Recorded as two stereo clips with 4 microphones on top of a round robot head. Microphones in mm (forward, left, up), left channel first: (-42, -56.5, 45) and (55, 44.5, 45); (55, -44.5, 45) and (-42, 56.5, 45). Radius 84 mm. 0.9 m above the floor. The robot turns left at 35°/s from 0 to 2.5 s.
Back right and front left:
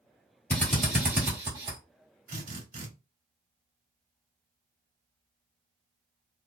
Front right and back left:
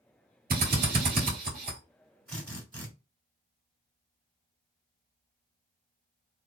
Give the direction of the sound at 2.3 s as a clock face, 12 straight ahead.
11 o'clock.